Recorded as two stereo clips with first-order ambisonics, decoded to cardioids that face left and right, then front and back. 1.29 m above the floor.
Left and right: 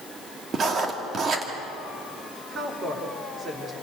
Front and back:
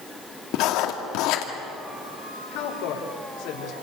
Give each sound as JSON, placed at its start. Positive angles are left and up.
{"t": 0.5, "sound": "writing", "azimuth_deg": -25, "distance_m": 2.0}
{"t": 2.5, "sound": "a woman speaking", "azimuth_deg": -25, "distance_m": 4.0}